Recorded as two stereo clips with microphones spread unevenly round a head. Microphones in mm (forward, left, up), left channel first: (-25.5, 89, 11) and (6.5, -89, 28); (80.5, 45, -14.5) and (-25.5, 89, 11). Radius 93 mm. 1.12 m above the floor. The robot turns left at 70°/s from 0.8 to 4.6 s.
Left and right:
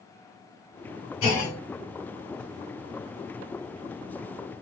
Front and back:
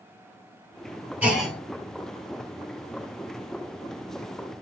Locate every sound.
1.2 s a clunk: 80° left, 2.5 m; by 1.6 s 55° left, 2.5 m